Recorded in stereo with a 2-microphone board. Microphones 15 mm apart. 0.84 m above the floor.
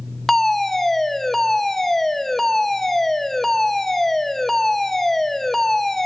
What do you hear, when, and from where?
0.3 s a fire alarm: 25° left (ahead or behind), 1.4 m